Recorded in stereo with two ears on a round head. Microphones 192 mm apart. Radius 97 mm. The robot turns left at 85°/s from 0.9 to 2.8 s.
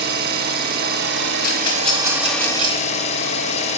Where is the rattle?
40° left (ahead or behind), 2.5 m; by 2.9 s 75° right (ahead or behind), 2.5 m.